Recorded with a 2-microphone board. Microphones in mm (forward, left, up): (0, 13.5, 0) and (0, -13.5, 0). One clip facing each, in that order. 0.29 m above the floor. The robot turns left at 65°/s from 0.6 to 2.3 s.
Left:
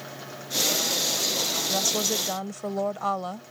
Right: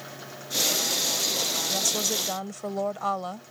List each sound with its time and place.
1.7 s a woman speaking: 40° left; by 3.5 s straight ahead